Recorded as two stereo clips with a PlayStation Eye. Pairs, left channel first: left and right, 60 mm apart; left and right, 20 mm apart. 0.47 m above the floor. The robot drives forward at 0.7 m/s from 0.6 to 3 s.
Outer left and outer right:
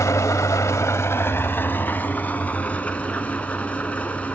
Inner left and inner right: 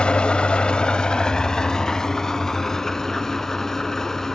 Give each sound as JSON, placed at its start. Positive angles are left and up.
{"t": 0.0, "sound": "an engine running", "side_deg": 65, "distance_m": 0.9}